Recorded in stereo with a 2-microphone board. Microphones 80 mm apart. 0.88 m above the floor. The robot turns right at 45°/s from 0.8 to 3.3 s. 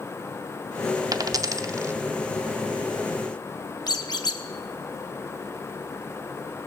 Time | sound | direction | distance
1.1 | a dropped coin | 50° right (ahead or behind) | 0.5 m
3.9 | a squeak | 55° left (ahead or behind) | 0.9 m